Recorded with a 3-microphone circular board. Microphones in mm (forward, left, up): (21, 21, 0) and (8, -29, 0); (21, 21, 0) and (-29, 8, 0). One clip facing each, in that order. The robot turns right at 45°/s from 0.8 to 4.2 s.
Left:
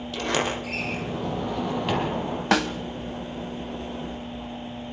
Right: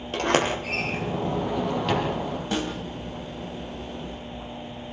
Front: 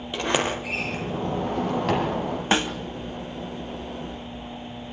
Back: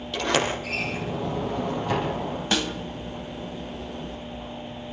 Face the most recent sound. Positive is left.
turn(degrees=150)